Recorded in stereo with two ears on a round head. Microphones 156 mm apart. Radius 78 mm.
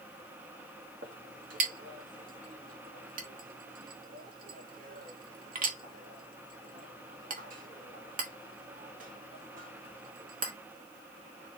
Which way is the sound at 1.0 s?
50° right (ahead or behind).